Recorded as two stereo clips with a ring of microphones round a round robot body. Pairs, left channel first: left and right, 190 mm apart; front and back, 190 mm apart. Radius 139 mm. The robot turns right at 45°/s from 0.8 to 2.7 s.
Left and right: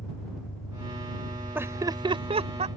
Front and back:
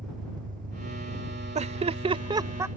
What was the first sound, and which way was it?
An engine running, 135° left.